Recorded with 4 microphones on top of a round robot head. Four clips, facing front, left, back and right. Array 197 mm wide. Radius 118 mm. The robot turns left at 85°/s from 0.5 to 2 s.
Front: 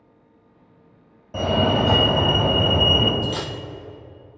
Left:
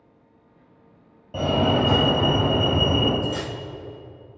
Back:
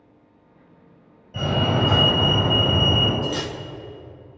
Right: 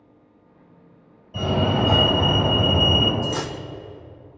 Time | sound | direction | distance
1.3 | a fire alarm | 40° left | 3.5 m
3.2 | cutlery clinking | 65° right | 0.6 m